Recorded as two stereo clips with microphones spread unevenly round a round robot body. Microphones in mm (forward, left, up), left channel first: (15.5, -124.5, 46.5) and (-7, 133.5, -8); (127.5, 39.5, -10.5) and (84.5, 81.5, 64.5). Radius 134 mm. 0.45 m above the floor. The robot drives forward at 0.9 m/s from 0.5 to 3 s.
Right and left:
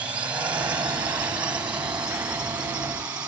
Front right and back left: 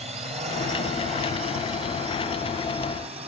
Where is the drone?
175° left.